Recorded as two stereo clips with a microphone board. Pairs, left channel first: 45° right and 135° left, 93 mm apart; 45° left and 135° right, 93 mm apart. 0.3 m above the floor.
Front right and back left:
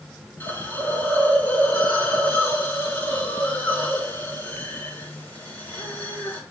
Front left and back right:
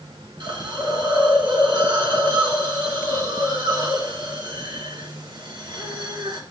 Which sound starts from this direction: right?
A hiss, at 0.4 s.